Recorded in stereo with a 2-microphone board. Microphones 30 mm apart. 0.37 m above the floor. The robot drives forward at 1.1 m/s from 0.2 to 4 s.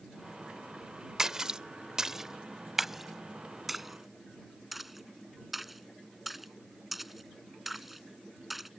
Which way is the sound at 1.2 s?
15° right (ahead or behind).